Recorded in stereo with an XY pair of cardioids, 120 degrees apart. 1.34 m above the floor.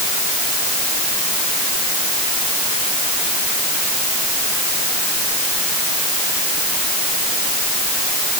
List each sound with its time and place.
Only background noise.